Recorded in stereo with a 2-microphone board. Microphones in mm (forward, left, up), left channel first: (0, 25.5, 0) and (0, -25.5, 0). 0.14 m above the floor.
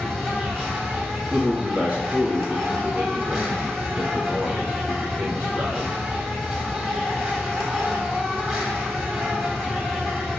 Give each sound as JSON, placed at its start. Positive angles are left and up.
{"t": 0.0, "sound": "an insect", "side_deg": -15, "distance_m": 1.7}
{"t": 1.3, "sound": "a man speaking", "side_deg": -25, "distance_m": 1.3}